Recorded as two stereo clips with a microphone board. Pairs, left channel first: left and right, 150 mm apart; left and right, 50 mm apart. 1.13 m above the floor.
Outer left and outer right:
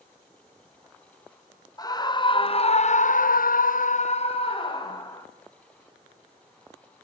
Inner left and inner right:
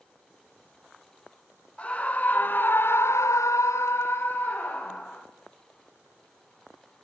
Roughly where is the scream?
Left.